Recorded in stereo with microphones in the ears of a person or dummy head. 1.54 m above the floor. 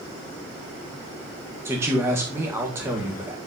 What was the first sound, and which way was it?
A man speaking, 10° right (ahead or behind).